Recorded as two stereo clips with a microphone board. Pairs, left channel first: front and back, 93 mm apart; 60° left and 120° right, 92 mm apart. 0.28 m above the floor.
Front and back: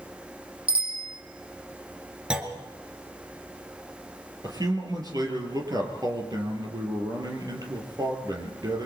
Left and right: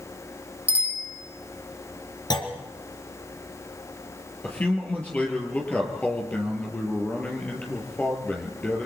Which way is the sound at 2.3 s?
100° left.